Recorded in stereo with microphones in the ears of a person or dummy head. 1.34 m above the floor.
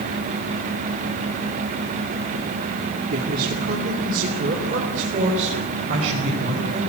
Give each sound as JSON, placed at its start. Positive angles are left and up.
{"t": 3.1, "sound": "a man speaking", "side_deg": -55, "distance_m": 2.5}